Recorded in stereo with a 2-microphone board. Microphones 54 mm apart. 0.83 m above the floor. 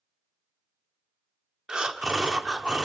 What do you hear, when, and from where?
1.7 s breathing: 15° right (ahead or behind), 0.5 m